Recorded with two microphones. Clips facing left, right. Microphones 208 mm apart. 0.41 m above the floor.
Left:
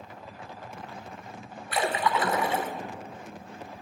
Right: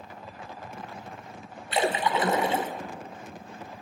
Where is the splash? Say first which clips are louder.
Right 2 dB; 20° right (ahead or behind), 1.4 m.